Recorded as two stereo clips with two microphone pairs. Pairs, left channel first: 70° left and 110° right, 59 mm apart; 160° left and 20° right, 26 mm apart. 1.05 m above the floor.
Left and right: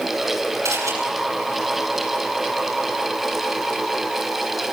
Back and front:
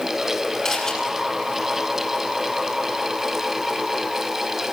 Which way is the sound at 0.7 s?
135° right.